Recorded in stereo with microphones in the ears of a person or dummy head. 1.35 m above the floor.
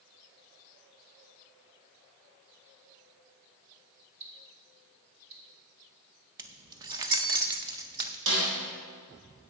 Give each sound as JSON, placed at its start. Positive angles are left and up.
{"t": 4.2, "sound": "ticking", "side_deg": -35, "distance_m": 2.5}
{"t": 6.4, "sound": "keys jangling", "side_deg": -25, "distance_m": 0.6}
{"t": 8.3, "sound": "a snare drum", "side_deg": -80, "distance_m": 4.0}